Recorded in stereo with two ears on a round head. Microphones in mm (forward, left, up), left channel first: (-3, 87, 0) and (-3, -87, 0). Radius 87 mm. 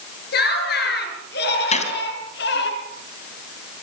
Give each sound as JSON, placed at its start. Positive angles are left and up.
{"t": 0.3, "sound": "laughter", "side_deg": 60, "distance_m": 8.0}
{"t": 1.7, "sound": "a gunshot", "side_deg": 40, "distance_m": 3.0}